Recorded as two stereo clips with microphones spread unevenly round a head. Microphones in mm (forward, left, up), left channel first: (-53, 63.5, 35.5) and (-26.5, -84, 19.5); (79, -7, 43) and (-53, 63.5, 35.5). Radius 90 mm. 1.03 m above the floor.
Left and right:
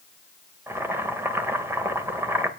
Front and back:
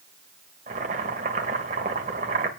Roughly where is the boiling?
Behind right.